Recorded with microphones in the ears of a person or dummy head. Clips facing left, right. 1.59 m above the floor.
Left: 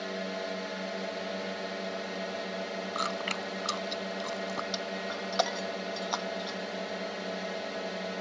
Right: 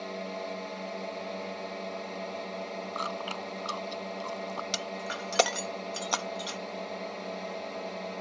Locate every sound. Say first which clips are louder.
0.0 s a drone: left 1 dB; 10° left (ahead or behind)
3.0 s chewing: left 1 dB; 25° left (ahead or behind)
4.7 s breaking glass: left 1 dB; 45° right (ahead or behind)